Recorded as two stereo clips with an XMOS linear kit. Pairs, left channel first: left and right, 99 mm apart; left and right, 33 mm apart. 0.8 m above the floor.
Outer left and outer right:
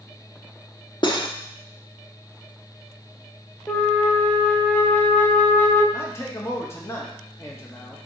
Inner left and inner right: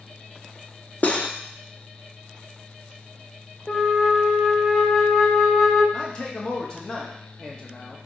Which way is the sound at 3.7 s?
15° left (ahead or behind).